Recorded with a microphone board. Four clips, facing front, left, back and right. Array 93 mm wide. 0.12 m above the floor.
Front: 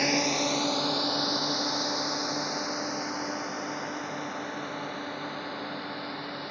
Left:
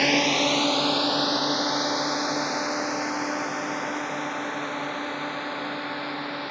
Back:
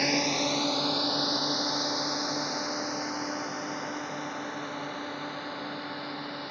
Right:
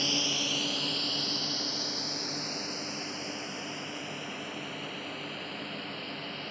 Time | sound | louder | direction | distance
0.0 | a drone | left 12 dB, front 1 dB | 85° left | ?